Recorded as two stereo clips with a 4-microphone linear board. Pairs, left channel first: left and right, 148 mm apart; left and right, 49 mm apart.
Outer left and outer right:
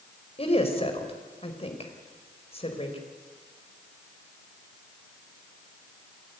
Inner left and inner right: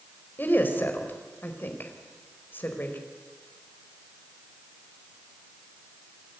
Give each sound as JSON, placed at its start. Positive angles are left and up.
{"t": 0.4, "sound": "a woman speaking", "side_deg": 40, "distance_m": 4.5}